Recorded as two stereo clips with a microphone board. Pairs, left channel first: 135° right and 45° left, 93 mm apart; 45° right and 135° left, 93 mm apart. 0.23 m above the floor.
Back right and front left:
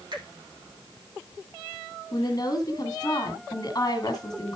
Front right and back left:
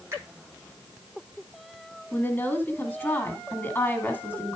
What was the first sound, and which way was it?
A finger snap, 75° left.